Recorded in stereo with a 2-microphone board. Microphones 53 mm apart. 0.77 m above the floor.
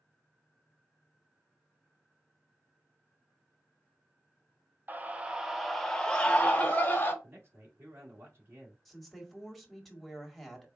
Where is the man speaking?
55° right (ahead or behind), 1.7 m.